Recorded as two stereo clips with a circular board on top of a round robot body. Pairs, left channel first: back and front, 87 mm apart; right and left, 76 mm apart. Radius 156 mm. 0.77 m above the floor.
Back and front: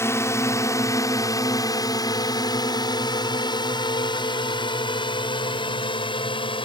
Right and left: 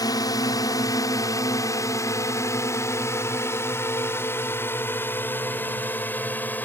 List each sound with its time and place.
0.0 s a drone: 120° right; by 6.7 s 160° right